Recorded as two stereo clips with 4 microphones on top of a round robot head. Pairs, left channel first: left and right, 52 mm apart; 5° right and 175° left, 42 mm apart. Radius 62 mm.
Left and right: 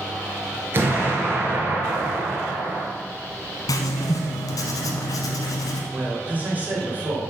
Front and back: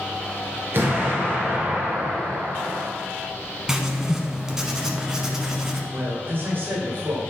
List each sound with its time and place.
0.7 s an explosion: 140° right, 2.5 m
3.7 s writing: 95° left, 1.2 m
5.9 s a man speaking: 150° right, 2.5 m